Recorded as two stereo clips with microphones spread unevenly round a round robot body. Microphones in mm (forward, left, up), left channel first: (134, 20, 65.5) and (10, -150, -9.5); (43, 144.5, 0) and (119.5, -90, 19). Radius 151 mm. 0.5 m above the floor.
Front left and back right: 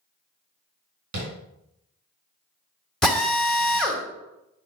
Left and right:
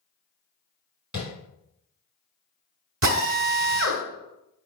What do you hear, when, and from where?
1.1 s tapping: 160° right, 3 m
3.0 s a drill: 40° right, 1.5 m